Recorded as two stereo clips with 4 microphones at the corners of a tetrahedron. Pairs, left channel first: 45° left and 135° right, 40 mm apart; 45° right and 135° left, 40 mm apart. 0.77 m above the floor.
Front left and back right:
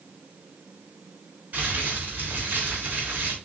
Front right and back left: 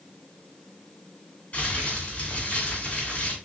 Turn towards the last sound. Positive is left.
turn(degrees=-90)